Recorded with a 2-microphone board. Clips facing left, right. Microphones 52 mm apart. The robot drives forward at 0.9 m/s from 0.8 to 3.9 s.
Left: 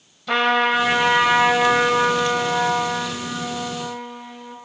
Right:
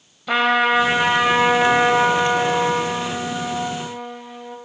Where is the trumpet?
10° right (ahead or behind), 1.6 m.